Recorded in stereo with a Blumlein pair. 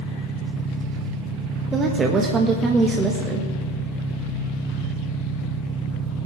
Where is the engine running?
15° right, 1.1 m.